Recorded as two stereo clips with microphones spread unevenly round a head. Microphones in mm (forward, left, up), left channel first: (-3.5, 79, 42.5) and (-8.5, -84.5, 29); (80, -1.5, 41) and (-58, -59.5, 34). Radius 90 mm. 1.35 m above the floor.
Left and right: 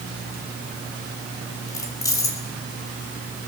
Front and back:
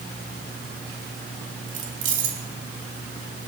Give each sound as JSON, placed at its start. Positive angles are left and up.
{"t": 1.7, "sound": "keys jangling", "azimuth_deg": 160, "distance_m": 3.0}